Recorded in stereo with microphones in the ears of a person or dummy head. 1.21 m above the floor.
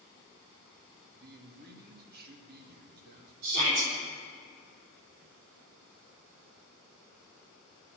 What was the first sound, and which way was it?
A man speaking, 55° right (ahead or behind).